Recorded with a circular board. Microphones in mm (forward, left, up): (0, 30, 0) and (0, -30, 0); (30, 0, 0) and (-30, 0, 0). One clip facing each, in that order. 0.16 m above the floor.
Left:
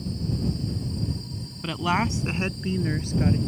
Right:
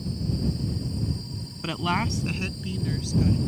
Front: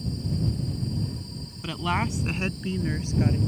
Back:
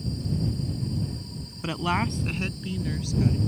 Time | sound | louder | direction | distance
1.6 | a woman speaking | left 2 dB, back 1 dB | 155° right | ?